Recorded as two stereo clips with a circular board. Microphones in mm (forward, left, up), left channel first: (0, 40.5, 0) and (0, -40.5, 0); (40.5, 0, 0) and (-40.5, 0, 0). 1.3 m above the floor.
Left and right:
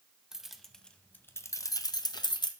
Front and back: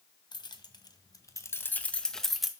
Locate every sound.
0.3 s keys jangling: 5° right, 0.8 m; by 2.5 s 95° left, 0.8 m